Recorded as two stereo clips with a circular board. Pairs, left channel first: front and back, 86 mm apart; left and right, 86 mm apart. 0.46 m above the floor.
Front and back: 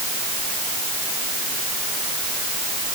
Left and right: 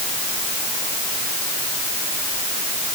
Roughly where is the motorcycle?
I don't hear a motorcycle.